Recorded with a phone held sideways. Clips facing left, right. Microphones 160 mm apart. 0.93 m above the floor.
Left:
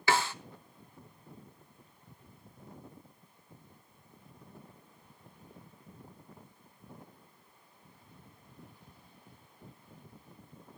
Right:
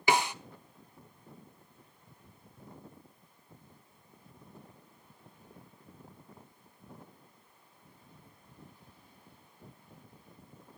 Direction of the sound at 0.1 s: 15° right (ahead or behind).